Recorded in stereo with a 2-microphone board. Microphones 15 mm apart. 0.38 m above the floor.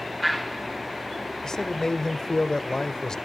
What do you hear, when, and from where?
1.4 s a man speaking: 40° left (ahead or behind), 1.5 m